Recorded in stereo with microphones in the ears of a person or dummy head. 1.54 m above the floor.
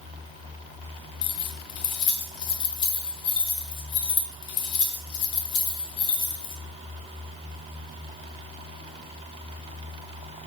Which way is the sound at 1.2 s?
30° left (ahead or behind).